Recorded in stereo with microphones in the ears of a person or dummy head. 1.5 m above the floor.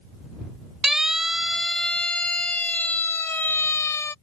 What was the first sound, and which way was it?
A siren, 5° left (ahead or behind).